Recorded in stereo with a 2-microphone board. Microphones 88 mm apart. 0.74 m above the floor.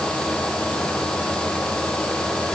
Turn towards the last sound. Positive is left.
No sound to turn to.